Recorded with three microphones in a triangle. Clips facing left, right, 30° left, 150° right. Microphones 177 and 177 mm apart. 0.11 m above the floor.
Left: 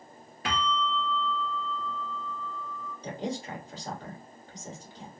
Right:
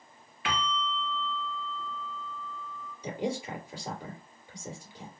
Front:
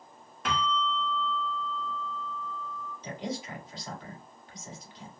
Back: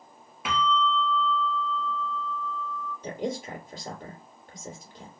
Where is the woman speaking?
165° right, 2.5 m.